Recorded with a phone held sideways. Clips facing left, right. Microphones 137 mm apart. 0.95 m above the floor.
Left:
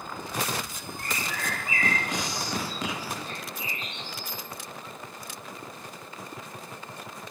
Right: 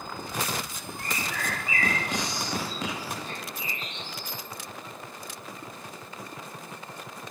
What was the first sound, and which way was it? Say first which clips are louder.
A bird: right 1 dB; 40° left (ahead or behind).